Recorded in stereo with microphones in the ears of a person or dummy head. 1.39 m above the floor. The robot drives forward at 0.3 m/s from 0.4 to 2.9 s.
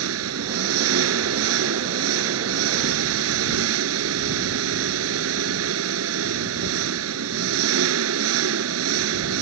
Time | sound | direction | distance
0.0 | an engine running | 85° right | ?